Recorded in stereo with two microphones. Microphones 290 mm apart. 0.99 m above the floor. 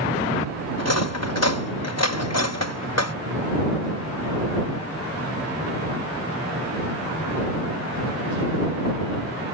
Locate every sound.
0.8 s cutlery clinking: 60° left (ahead or behind)